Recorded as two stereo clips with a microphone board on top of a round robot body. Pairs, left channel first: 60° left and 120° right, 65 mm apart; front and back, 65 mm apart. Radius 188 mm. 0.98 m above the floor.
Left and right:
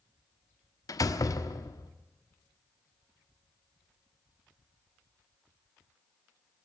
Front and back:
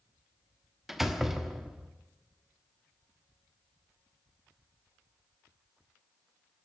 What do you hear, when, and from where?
0.9 s a door slam: 95° left, 1.3 m